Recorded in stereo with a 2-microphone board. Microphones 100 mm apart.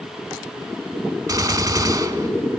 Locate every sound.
1.3 s a gunshot: 40° right (ahead or behind), 0.7 m